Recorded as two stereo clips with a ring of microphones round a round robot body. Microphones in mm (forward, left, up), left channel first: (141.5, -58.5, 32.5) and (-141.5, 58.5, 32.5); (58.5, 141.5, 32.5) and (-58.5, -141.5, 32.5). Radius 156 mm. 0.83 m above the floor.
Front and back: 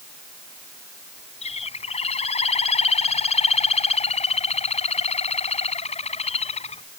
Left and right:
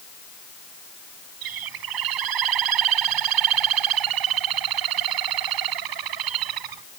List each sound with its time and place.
1.4 s a bird: 95° right